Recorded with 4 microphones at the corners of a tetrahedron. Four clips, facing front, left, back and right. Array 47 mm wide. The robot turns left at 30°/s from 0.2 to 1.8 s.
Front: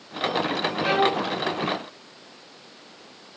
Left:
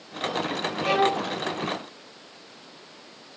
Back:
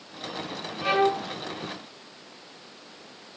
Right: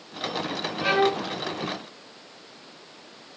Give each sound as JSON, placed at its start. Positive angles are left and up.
{"t": 0.8, "sound": "a violin", "azimuth_deg": -80, "distance_m": 5.0}